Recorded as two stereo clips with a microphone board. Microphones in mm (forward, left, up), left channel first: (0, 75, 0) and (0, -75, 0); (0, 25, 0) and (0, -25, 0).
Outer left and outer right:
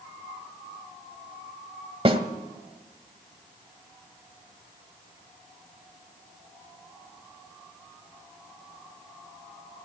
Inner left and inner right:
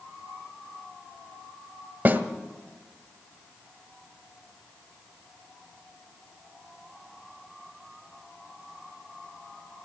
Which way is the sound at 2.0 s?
40° right (ahead or behind).